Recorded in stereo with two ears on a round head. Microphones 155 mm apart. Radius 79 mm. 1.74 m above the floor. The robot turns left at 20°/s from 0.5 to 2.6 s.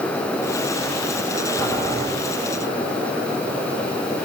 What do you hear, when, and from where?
1.6 s boiling: 15° left (ahead or behind), 8 m; by 2.0 s 10° left (ahead or behind), 8 m